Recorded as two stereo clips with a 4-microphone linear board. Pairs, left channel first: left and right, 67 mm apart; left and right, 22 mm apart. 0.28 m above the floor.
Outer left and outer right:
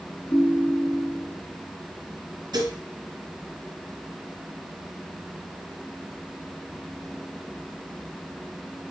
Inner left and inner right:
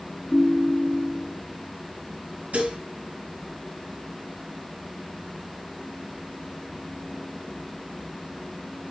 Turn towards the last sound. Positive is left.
turn(degrees=-75)  # may be behind; listen again after turning